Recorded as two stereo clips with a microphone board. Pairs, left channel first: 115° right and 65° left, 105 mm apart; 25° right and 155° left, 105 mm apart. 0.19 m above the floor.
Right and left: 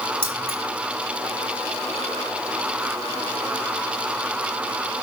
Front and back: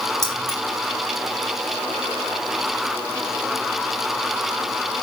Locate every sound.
0.2 s keys jangling: 65° left, 2.5 m